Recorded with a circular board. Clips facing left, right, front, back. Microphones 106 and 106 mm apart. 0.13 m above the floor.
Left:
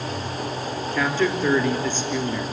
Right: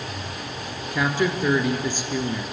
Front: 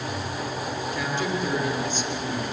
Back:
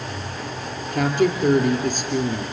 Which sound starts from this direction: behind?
A woman speaking, at 0.9 s.